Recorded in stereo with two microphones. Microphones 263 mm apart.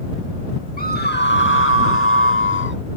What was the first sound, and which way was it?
A scream, 30° left (ahead or behind).